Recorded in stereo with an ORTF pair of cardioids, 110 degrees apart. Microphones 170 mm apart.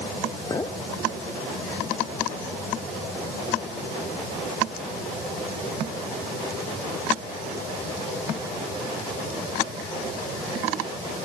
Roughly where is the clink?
Ahead.